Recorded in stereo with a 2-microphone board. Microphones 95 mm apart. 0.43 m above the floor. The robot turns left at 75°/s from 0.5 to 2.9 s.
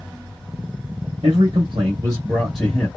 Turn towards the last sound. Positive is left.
turn(degrees=155)